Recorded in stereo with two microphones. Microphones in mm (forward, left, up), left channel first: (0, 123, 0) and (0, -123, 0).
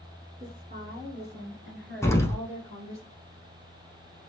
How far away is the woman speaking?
About 1.4 m.